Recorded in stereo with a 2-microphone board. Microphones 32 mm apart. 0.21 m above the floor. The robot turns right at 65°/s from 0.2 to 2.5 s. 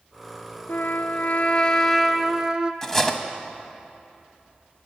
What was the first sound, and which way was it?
A trumpet, 90° left.